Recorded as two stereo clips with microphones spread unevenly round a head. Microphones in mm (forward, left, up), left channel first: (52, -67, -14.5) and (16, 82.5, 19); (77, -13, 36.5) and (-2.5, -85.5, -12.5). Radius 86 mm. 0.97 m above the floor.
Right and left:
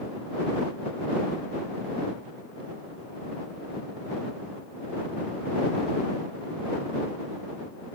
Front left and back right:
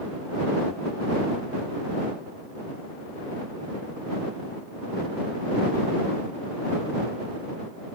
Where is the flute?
I don't hear a flute.